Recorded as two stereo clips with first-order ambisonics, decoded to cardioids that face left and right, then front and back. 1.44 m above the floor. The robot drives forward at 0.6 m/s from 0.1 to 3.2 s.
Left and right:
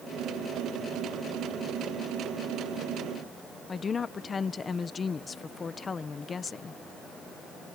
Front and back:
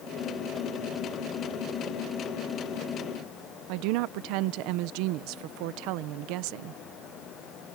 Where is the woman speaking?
160° left.